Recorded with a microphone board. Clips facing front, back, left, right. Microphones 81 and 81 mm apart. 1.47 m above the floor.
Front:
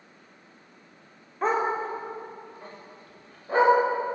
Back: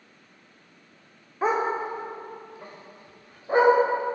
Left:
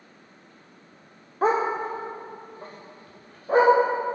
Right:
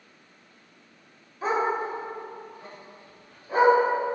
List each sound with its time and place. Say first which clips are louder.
1.4 s a dog barking: back 1 dB, left 3 dB; 100° left, 1.6 m; by 3.7 s 115° left, 3.5 m